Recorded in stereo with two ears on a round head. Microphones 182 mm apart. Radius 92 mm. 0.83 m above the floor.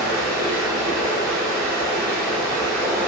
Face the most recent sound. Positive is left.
turn(degrees=10)  # may be behind; listen again after turning